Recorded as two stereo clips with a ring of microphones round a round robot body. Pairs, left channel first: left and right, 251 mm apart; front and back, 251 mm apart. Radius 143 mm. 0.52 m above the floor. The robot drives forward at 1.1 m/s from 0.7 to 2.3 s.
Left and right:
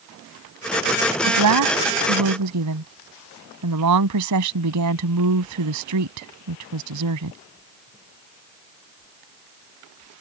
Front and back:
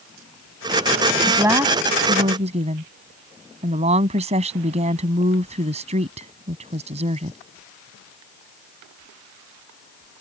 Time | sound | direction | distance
1.2 | a woman speaking | 95° right | ?